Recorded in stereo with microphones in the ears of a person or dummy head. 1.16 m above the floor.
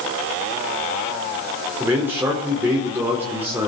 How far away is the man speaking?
About 3.5 m.